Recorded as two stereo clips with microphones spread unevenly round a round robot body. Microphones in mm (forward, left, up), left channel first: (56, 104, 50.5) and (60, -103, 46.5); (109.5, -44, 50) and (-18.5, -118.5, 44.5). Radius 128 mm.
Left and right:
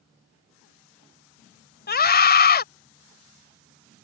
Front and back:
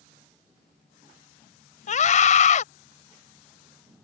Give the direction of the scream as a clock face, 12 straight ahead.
10 o'clock.